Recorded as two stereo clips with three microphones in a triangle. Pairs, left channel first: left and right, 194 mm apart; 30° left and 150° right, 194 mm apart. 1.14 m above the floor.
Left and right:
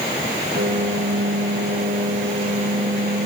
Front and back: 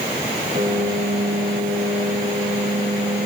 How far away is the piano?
About 6.5 m.